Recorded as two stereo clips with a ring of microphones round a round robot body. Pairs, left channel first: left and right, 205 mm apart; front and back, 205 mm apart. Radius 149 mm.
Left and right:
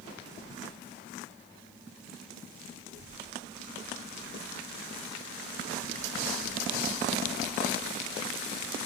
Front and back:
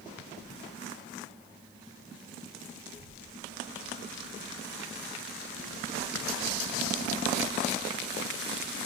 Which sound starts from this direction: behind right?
A child speaking, at 2.8 s.